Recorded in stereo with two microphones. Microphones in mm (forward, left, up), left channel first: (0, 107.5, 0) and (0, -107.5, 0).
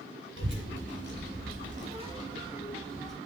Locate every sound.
0.4 s a child speaking: 55° right (ahead or behind), 1.0 m; by 3.2 s 5° left (ahead or behind), 1.0 m